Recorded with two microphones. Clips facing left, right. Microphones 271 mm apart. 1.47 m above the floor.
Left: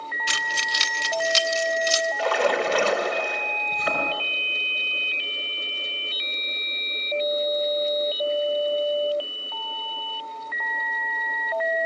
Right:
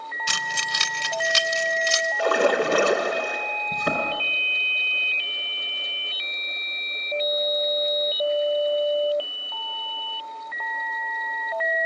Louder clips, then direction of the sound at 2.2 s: Right 3 dB; 55° right (ahead or behind).